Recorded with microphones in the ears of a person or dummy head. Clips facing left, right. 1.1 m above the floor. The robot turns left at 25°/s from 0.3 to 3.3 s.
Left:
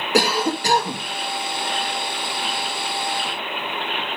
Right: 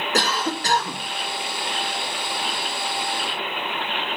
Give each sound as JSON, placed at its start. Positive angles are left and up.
{"t": 0.1, "sound": "a cough", "side_deg": 20, "distance_m": 0.6}